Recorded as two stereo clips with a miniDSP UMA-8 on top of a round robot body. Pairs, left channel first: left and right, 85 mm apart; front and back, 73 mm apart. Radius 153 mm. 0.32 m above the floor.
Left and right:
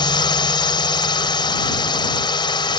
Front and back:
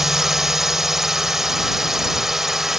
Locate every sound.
0.0 s a drone: 95° left